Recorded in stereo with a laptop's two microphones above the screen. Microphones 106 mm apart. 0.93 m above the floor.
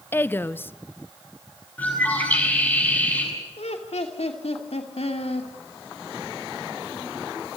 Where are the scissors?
No scissors in this recording.